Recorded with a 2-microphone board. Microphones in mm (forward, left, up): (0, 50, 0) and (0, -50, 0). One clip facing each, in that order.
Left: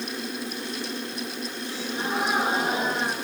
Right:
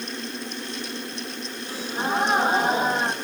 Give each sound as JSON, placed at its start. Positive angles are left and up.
{"t": 1.7, "sound": "a gasp", "side_deg": -40, "distance_m": 6.0}